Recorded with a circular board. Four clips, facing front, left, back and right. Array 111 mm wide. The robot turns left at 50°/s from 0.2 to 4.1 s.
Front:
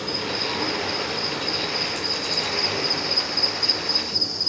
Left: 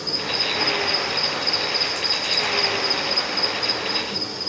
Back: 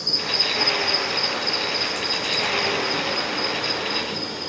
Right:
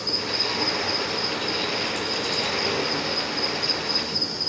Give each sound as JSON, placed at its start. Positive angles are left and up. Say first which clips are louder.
{"t": 0.0, "sound": "an insect", "louder": "left 1 dB, front 1 dB", "azimuth_deg": 5, "distance_m": 1.3}